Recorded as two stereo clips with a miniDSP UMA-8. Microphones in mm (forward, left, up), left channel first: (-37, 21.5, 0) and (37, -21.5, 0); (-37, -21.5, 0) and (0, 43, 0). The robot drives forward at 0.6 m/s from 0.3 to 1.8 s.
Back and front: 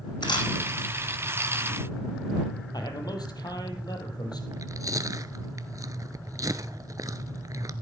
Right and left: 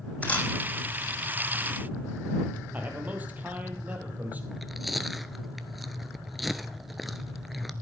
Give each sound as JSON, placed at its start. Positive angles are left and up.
{"t": 0.2, "sound": "a camera shutter", "azimuth_deg": 170, "distance_m": 2.5}
{"t": 2.7, "sound": "a man speaking", "azimuth_deg": 125, "distance_m": 3.0}
{"t": 4.5, "sound": "chewing", "azimuth_deg": -30, "distance_m": 0.7}